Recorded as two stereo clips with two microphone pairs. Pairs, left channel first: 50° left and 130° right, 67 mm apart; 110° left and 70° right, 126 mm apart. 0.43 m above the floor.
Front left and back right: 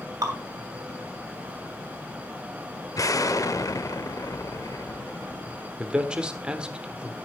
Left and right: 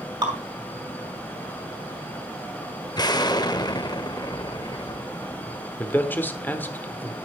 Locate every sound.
0.2 s dripping: 115° right, 3 m
3.0 s an explosion: 60° left, 0.6 m
5.8 s a man speaking: 170° left, 1.0 m